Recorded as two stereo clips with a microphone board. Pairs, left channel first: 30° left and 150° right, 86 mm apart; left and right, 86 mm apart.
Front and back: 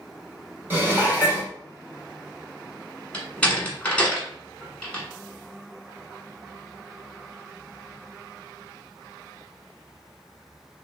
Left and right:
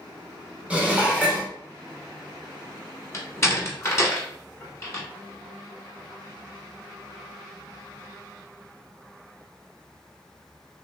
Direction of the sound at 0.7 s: 140° right.